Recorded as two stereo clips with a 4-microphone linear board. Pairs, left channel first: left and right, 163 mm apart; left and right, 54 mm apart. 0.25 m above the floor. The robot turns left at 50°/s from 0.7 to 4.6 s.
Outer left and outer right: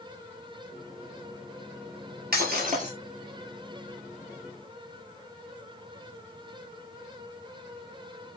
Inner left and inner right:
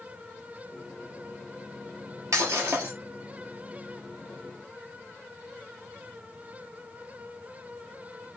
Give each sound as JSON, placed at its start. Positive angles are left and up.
{"t": 2.3, "sound": "breaking glass", "side_deg": -70, "distance_m": 3.5}